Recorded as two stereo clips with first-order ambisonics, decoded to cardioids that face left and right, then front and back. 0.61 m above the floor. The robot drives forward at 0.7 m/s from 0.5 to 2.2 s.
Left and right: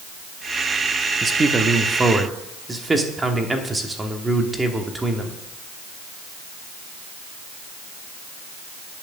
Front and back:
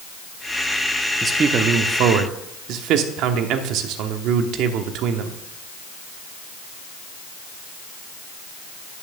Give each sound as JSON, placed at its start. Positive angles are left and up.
{"t": 1.2, "sound": "a man speaking", "azimuth_deg": -125, "distance_m": 0.7}